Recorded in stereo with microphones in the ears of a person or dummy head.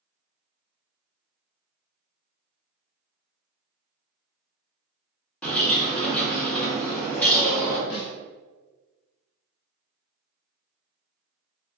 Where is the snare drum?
55° left (ahead or behind), 0.9 m.